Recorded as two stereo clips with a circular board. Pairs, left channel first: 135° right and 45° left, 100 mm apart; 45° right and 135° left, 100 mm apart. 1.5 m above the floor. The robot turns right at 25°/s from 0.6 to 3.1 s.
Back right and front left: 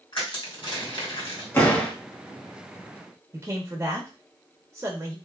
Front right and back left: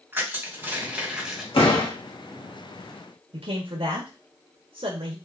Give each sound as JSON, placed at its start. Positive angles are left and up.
{"t": 0.1, "sound": "crushing", "azimuth_deg": -160, "distance_m": 1.8}
{"t": 1.5, "sound": "a door slam", "azimuth_deg": -65, "distance_m": 1.5}
{"t": 3.3, "sound": "a man speaking", "azimuth_deg": 110, "distance_m": 1.0}